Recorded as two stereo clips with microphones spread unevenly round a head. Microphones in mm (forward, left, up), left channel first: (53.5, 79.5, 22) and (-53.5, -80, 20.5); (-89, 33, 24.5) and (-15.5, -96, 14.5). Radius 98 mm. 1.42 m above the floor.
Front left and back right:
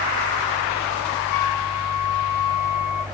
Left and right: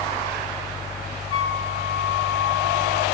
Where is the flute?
50° left, 3 m.